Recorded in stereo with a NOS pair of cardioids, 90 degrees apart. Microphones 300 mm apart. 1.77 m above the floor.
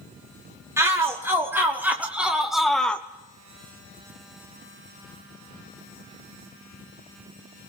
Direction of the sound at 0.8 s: 10° right.